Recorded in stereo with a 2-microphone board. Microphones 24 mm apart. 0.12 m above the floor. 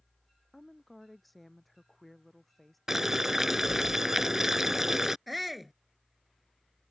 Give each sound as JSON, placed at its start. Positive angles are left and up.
{"t": 0.5, "sound": "a woman speaking", "side_deg": 0}
{"t": 2.9, "sound": "boiling", "side_deg": -20}
{"t": 5.3, "sound": "a shout", "side_deg": -5}